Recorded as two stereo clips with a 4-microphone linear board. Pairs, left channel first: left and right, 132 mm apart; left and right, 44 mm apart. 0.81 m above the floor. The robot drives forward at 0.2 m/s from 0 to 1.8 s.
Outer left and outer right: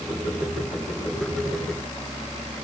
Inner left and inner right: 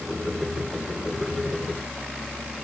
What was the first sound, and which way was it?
Only background noise.